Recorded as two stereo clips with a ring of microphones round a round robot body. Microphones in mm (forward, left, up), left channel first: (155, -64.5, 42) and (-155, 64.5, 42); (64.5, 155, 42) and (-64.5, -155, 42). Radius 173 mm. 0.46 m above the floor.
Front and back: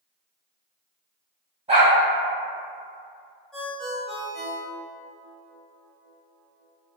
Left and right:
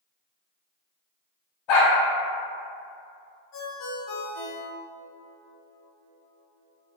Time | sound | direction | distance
1.7 | a dog barking | 85° left | 1.1 m
3.5 | a ringtone | 65° left | 1.0 m